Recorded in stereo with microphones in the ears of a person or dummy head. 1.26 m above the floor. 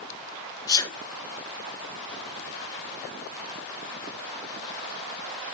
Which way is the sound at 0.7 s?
20° left (ahead or behind).